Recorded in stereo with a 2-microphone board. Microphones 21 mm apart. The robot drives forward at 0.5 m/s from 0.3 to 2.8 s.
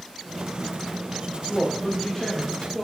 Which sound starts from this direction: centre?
A woman speaking, at 1.5 s.